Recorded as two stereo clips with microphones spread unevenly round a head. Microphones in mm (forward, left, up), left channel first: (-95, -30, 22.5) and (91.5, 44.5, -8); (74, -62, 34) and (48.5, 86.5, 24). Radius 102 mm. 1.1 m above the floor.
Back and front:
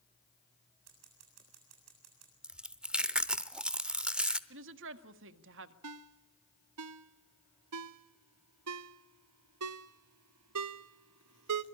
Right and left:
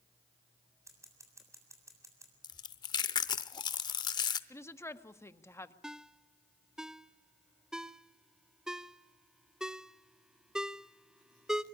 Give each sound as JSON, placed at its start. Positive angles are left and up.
{"t": 0.9, "sound": "scissors", "azimuth_deg": 30, "distance_m": 7.5}
{"t": 2.4, "sound": "chewing", "azimuth_deg": -75, "distance_m": 0.8}
{"t": 4.5, "sound": "a woman speaking", "azimuth_deg": -5, "distance_m": 1.6}
{"t": 5.8, "sound": "a ringtone", "azimuth_deg": 10, "distance_m": 0.7}